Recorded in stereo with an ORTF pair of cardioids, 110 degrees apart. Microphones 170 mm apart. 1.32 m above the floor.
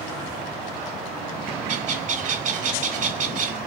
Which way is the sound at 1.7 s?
55° right.